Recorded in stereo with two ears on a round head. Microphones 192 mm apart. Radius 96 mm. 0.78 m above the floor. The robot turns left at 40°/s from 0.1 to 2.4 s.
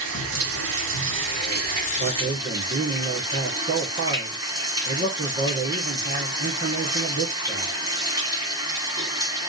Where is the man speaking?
55° right (ahead or behind), 1.7 m; by 7.7 s 45° right (ahead or behind), 1.7 m.